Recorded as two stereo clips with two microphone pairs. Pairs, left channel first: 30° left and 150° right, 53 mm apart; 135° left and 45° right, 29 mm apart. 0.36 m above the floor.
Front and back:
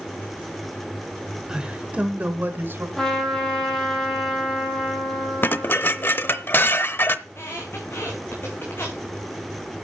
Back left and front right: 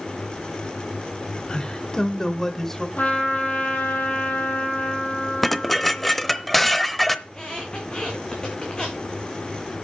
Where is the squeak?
75° left, 4 m.